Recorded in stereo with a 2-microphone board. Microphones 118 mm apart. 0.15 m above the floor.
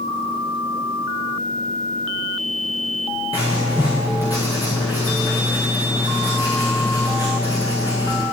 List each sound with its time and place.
3.3 s writing: 35° left (ahead or behind), 6 m